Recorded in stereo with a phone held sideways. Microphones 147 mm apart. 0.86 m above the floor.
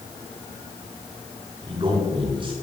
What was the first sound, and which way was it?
A man speaking, 40° right (ahead or behind).